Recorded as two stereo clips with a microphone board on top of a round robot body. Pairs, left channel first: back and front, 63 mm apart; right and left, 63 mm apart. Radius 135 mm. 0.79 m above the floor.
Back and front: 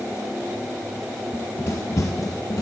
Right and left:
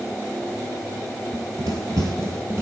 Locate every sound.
1.3 s running footsteps: 105° left, 1.1 m; by 2.6 s 145° left, 1.9 m